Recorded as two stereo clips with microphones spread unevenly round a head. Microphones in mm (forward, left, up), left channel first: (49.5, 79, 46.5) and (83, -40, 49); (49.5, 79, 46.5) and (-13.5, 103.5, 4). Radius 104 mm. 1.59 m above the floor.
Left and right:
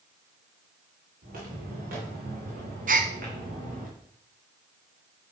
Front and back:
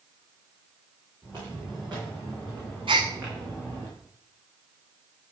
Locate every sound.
1.2 s footsteps: 85° right, 6 m; by 3.9 s 110° right, 4.5 m
2.9 s a gasp: 125° right, 0.6 m